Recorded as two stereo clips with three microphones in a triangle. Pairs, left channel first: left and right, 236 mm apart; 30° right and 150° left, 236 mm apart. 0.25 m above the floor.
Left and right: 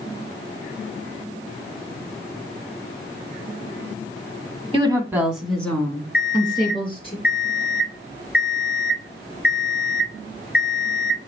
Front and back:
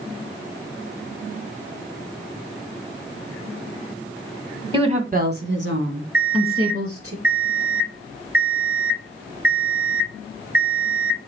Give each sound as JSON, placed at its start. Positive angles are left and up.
{"t": 4.7, "sound": "a woman speaking", "azimuth_deg": -145, "distance_m": 1.6}
{"t": 6.1, "sound": "an alarm clock", "azimuth_deg": 130, "distance_m": 1.8}